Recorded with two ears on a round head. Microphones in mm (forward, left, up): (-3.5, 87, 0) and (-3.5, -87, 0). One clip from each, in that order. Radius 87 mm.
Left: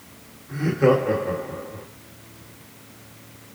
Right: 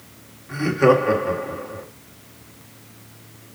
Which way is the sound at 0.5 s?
35° right (ahead or behind).